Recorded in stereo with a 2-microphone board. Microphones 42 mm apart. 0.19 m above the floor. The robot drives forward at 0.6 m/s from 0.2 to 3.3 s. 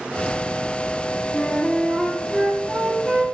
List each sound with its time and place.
1.3 s a flute: 20° left (ahead or behind), 0.7 m; by 3.2 s 5° left (ahead or behind), 1.8 m